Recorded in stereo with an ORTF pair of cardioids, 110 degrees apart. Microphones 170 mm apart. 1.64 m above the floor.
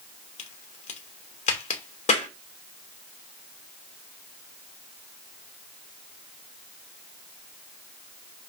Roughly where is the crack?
Ahead left.